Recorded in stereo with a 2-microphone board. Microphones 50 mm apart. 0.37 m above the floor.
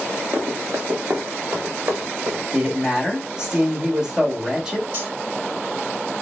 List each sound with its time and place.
0.3 s running footsteps: 60° right (ahead or behind), 1.0 m
2.5 s a woman speaking: 20° right (ahead or behind), 1.0 m
4.9 s cutlery clinking: 45° right (ahead or behind), 1.5 m